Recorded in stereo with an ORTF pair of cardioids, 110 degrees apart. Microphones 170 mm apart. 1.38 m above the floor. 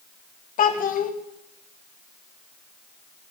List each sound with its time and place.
0.6 s a child speaking: 50° left, 1.1 m